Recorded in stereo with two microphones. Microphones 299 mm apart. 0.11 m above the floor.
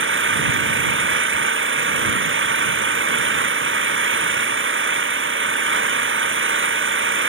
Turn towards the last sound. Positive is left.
turn(degrees=-40)  # may be behind; listen again after turning